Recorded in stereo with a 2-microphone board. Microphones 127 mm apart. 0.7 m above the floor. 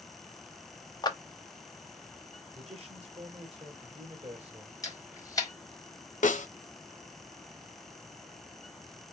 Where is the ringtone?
I don't hear a ringtone.